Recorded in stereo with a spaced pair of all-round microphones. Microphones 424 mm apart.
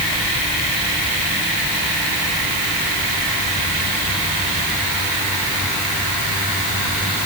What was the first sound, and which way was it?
Only background noise.